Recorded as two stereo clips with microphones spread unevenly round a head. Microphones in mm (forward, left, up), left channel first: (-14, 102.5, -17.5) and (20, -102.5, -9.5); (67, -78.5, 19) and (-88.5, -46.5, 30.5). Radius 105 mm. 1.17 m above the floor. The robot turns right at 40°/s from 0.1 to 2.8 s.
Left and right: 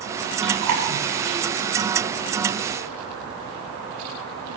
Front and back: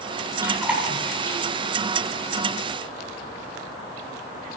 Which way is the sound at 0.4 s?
120° right.